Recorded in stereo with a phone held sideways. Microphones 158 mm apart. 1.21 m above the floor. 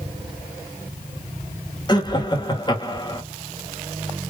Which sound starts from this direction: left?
Laughter, at 1.9 s.